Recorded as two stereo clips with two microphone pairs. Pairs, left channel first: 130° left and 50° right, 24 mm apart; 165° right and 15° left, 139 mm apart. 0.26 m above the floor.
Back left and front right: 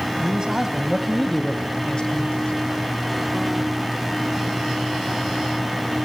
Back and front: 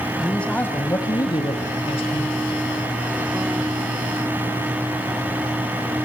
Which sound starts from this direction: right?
A man speaking, at 0.2 s.